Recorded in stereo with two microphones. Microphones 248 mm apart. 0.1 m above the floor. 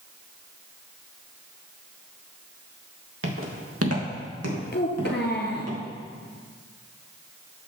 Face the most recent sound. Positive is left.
turn(degrees=45)  # may be behind; listen again after turning